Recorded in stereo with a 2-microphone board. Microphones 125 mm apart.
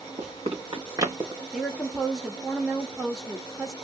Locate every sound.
0.2 s running footsteps: 60° right (ahead or behind), 1.5 m; by 1.4 s 20° right (ahead or behind), 1.8 m
1.5 s a woman speaking: 5° right (ahead or behind), 0.9 m